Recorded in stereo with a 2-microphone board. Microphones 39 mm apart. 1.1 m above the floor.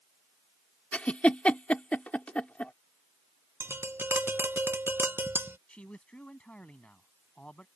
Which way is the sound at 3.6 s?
70° right (ahead or behind).